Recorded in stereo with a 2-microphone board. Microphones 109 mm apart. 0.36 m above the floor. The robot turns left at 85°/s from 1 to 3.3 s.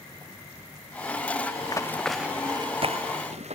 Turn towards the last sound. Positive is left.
turn(degrees=-80)